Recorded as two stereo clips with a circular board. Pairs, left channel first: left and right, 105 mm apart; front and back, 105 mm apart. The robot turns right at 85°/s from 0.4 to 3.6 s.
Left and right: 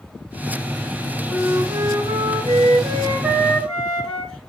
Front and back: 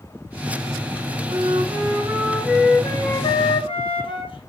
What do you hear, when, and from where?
1.3 s a flute: 170° left, 2.5 m; by 4.5 s 5° left, 2.5 m